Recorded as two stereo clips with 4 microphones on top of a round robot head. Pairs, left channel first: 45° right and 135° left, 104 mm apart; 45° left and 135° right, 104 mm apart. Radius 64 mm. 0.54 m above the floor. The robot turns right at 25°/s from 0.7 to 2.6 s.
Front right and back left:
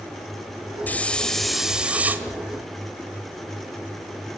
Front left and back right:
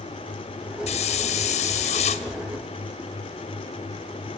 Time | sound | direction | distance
0.9 | a hiss | 30° left | 1.9 m